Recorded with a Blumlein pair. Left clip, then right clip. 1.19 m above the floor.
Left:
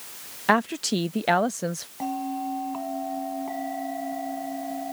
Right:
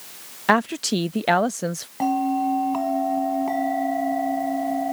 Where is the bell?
65° right.